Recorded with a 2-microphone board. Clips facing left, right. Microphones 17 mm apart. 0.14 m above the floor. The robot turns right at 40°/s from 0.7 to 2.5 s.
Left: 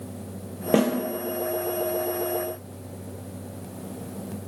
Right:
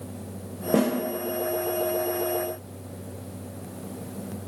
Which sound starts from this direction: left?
A snare drum, at 0.7 s.